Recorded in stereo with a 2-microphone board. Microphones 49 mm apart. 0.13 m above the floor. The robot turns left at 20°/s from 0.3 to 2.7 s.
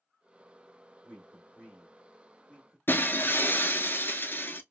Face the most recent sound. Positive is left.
turn(degrees=45)  # may be behind; listen again after turning